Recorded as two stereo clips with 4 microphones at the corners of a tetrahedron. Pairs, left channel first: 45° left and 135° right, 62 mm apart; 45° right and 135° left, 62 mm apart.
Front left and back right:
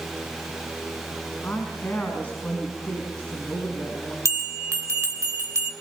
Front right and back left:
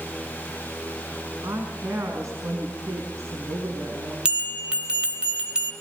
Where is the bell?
155° right, 2.5 m.